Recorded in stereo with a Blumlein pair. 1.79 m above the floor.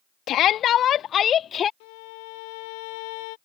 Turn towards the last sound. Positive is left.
turn(degrees=50)